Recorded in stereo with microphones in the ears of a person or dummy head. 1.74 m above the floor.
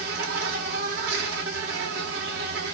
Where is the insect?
60° right (ahead or behind), 3 m.